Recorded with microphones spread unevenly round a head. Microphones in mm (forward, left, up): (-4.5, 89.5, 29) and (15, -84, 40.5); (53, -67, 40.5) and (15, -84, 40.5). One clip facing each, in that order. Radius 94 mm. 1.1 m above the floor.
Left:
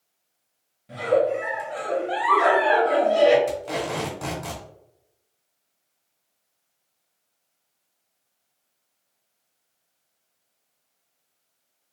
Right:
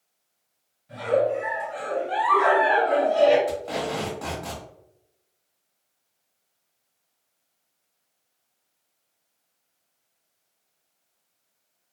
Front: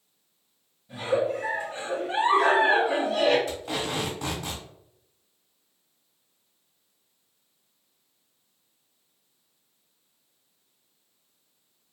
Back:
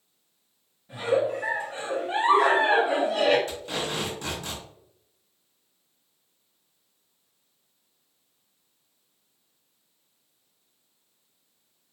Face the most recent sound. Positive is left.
turn(degrees=40)